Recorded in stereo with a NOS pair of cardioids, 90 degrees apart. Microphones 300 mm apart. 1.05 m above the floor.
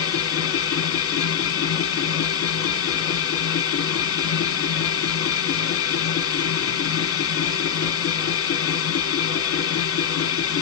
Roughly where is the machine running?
Ahead left.